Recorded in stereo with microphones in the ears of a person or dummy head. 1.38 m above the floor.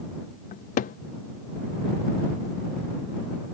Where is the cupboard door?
45° left (ahead or behind).